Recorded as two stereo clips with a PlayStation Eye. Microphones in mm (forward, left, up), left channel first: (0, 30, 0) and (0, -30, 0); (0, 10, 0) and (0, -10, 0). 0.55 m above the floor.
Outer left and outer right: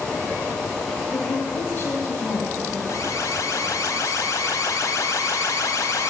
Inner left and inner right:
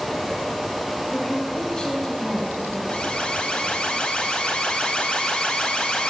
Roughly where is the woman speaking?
Left.